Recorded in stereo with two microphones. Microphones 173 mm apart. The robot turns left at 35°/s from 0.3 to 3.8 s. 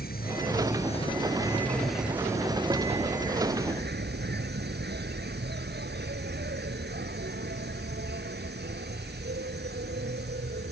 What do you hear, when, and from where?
0.0 s an insect: 55° left; by 10.7 s 65° right